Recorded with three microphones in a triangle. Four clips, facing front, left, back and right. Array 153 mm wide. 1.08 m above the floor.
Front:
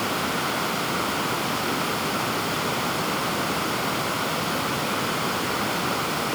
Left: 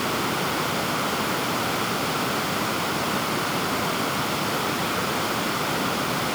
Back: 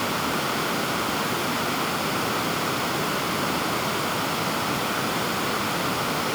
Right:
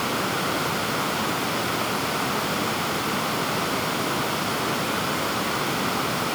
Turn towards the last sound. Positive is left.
No sound to turn to.